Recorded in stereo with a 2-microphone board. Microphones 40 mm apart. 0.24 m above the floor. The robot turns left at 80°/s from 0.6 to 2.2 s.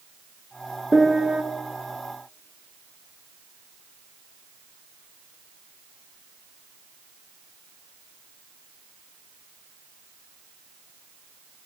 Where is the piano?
5° left, 0.5 m; by 1.4 s 35° right, 0.5 m.